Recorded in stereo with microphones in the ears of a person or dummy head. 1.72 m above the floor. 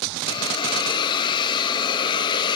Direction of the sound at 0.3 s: 30° left (ahead or behind).